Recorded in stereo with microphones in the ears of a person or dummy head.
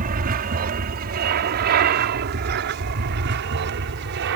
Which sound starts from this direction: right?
An aircraft, at 0.0 s.